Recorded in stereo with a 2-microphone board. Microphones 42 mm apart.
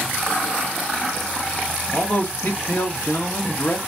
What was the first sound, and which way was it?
A man speaking, 60° left (ahead or behind).